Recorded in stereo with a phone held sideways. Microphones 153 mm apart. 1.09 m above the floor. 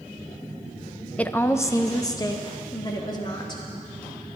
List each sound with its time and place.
1.2 s a woman speaking: 10° left (ahead or behind), 0.5 m; by 3.6 s 30° left (ahead or behind), 2.5 m